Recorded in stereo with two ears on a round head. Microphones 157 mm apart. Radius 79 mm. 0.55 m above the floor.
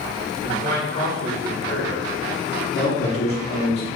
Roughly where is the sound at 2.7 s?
Left.